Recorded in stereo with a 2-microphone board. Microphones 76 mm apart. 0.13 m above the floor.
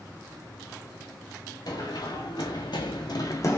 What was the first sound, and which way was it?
Running footsteps, 55° left (ahead or behind).